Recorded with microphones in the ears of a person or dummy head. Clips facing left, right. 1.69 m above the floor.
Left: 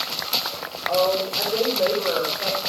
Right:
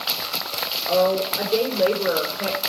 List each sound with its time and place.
0.9 s a woman speaking: 35° right (ahead or behind), 5.5 m